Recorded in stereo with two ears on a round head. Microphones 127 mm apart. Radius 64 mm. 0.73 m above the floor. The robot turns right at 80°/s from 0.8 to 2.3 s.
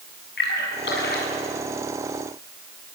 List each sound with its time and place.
0.4 s a splash: 75° left (ahead or behind), 6 m; by 1.4 s 55° left (ahead or behind), 6 m